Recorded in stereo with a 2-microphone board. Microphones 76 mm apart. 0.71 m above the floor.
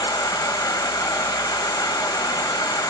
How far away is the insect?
About 2 m.